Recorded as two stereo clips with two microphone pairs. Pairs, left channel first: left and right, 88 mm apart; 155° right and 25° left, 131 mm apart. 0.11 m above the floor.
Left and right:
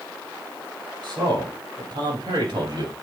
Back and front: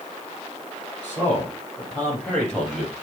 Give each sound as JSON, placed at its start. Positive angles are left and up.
{"t": 1.0, "sound": "a man speaking", "azimuth_deg": -80, "distance_m": 4.0}